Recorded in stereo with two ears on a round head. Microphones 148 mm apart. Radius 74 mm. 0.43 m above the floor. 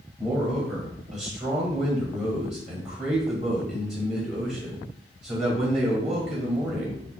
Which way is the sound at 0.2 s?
5° right (ahead or behind).